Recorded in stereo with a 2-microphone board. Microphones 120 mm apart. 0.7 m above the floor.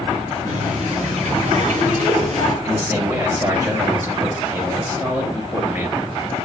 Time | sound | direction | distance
0.5 | a running tap | 80° right | 6 m
2.6 | a man speaking | 20° right (ahead or behind) | 4 m